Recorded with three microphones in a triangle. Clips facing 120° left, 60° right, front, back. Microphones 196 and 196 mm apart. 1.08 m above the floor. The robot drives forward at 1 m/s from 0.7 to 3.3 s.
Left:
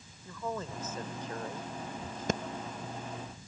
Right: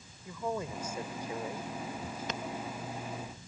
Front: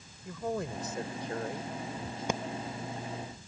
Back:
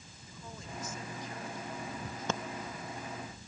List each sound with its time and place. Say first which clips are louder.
0.2 s a woman speaking: right 2 dB, front 14 dB; 15° left; by 1.7 s 20° left
2.3 s breathing: left 9 dB, front 2 dB; 75° left; by 2.4 s 85° left